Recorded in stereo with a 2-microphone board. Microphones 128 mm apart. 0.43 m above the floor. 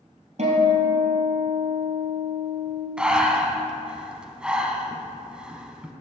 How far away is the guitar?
About 2.5 m.